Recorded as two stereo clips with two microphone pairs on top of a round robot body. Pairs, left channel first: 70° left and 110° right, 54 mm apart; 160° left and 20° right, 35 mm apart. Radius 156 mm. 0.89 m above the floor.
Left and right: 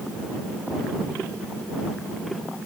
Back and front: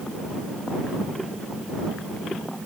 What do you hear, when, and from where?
Only background noise.